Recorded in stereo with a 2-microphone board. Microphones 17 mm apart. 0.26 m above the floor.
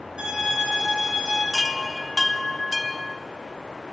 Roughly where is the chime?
Centre.